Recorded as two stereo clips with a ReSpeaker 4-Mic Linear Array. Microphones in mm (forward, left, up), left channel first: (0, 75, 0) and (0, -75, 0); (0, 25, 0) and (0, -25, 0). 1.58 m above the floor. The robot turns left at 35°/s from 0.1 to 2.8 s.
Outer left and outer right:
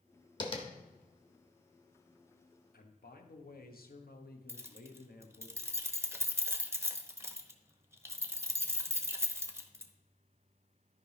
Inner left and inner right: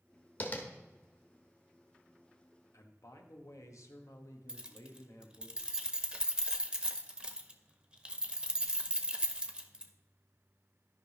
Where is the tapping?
30° left (ahead or behind), 1.3 m; by 0.7 s 35° left (ahead or behind), 1.3 m.